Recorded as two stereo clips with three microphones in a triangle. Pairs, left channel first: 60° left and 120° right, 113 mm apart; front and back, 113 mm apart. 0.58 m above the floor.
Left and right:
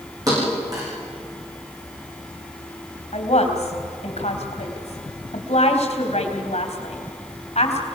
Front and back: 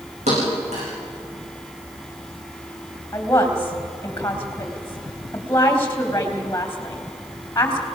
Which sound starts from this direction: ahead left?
A woman speaking, at 3.1 s.